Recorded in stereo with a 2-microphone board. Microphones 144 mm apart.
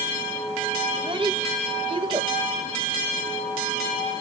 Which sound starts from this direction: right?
A child speaking, at 0.9 s.